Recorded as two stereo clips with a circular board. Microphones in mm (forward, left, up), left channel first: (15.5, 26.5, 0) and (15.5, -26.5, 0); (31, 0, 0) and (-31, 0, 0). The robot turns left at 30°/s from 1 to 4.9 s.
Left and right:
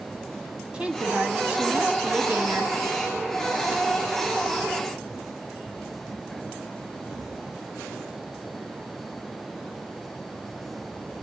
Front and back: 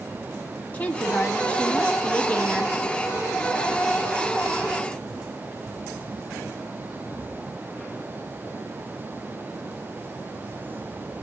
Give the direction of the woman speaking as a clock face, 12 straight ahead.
1 o'clock.